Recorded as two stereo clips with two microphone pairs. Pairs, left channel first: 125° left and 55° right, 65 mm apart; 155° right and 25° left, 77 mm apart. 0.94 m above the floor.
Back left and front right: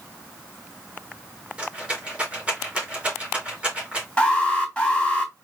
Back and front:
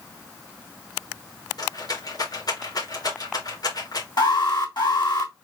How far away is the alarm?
About 3.5 m.